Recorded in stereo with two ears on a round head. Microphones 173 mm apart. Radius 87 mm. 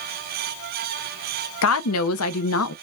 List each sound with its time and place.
1.6 s a woman speaking: 80° left, 0.7 m